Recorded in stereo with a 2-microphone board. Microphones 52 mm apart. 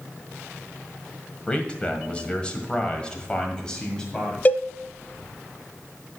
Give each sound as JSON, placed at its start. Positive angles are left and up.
{"t": 1.5, "sound": "a man speaking", "side_deg": 20, "distance_m": 1.6}
{"t": 4.5, "sound": "a cowbell", "side_deg": 35, "distance_m": 0.5}